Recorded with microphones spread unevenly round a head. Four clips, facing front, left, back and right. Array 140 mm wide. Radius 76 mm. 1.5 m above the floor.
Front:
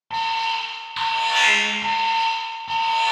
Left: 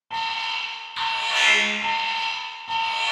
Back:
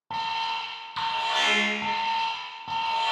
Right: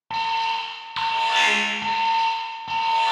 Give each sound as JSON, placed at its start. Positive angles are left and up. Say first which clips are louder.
{"t": 0.1, "sound": "an alarm", "louder": "right 5 dB, front 6 dB", "azimuth_deg": -95, "distance_m": 0.6}